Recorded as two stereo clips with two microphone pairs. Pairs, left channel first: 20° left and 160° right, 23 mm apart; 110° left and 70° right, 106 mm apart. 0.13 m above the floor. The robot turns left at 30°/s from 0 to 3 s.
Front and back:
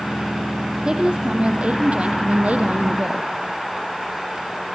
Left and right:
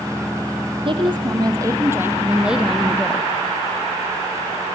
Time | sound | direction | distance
0.8 | a woman speaking | 100° right | 5 m